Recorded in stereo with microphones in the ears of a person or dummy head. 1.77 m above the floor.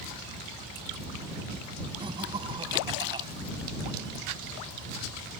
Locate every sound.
2.0 s laughter: 25° right (ahead or behind)